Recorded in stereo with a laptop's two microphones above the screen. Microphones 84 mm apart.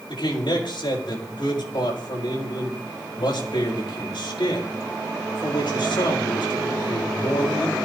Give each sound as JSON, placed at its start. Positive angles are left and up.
{"t": 0.1, "sound": "a man speaking", "side_deg": 80, "distance_m": 4.0}